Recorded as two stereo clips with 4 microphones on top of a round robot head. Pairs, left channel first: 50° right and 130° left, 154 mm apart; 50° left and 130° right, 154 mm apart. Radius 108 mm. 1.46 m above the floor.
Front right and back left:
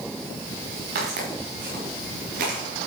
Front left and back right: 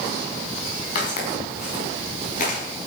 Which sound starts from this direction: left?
Footsteps, at 0.9 s.